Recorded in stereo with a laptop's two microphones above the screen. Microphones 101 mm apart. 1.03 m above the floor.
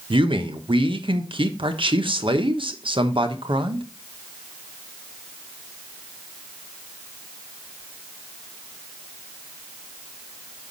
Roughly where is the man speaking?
Right.